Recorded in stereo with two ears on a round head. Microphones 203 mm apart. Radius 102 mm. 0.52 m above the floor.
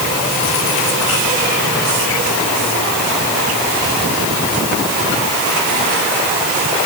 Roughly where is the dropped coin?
No dropped coin in this recording.